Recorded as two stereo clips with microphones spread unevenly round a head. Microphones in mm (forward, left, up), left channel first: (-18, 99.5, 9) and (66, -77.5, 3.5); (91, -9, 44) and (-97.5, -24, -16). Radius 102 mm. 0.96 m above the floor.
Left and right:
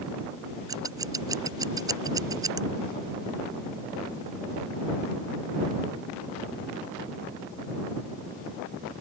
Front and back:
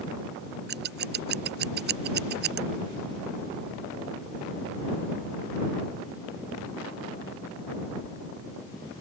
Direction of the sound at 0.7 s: 140° right.